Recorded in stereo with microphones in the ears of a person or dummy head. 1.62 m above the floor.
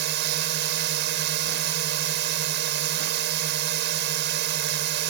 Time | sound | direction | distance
0.0 | a drone | 65° right (ahead or behind) | ?